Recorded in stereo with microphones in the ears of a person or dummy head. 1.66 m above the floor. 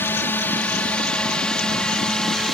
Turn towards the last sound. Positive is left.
turn(degrees=0)  # may be behind; listen again after turning